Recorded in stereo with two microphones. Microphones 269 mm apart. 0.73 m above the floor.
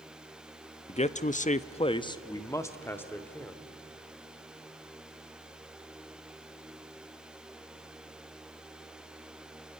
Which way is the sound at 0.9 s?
25° left (ahead or behind).